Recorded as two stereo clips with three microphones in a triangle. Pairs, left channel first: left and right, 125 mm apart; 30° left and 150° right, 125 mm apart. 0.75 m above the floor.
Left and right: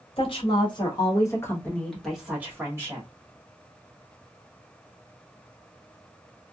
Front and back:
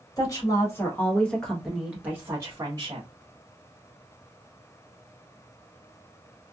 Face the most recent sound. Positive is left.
turn(degrees=-130)